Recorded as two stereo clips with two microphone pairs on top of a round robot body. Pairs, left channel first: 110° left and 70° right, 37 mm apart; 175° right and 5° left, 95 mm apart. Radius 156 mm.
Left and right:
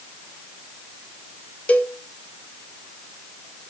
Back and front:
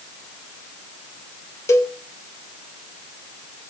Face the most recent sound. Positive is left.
turn(degrees=120)